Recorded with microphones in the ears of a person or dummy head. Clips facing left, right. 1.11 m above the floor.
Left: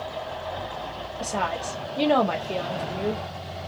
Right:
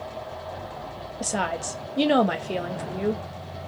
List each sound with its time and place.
1.2 s a woman speaking: 15° right (ahead or behind), 0.6 m